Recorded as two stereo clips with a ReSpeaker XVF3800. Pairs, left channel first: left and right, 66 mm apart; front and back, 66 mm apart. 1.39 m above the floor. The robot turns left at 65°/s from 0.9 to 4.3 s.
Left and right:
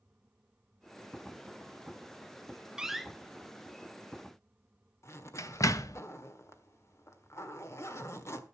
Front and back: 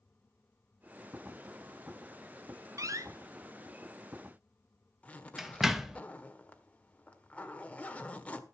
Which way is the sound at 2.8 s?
165° right.